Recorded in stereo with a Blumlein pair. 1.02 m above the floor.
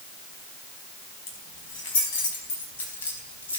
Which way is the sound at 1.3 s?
45° left.